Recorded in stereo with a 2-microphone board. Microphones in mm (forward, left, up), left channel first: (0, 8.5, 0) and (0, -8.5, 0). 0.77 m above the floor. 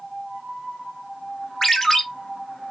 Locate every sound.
1.6 s a ringtone: 25° left (ahead or behind), 0.8 m